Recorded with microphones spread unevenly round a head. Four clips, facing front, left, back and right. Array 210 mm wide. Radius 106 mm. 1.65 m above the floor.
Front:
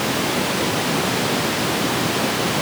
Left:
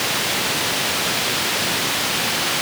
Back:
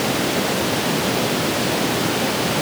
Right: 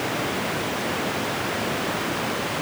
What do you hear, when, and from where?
Only background noise.